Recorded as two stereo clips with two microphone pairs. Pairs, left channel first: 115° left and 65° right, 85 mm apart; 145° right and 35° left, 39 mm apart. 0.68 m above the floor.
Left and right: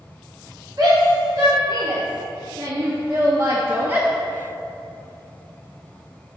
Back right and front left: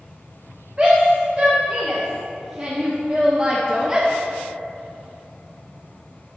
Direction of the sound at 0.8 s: 20° right.